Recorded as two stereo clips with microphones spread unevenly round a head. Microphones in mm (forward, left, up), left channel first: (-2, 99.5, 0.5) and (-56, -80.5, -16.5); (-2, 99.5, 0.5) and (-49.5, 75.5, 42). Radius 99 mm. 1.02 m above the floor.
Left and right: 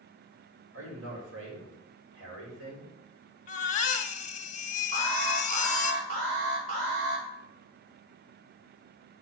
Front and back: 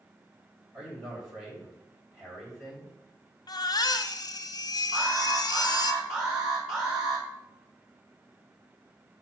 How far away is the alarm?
About 3 m.